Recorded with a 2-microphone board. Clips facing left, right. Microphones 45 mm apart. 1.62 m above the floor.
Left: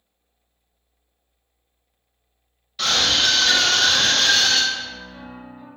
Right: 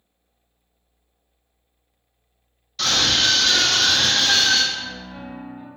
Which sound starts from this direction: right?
A piano, at 4.7 s.